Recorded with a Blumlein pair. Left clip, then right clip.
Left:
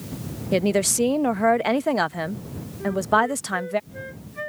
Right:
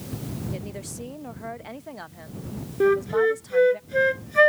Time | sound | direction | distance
0.5 | a woman speaking | 35° left | ?
2.8 | a flute | 55° right | ?